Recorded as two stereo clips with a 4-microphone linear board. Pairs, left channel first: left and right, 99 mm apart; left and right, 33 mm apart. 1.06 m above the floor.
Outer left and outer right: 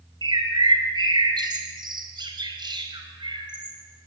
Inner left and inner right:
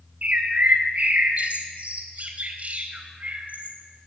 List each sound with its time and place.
0.2 s a bird: 50° right (ahead or behind), 4 m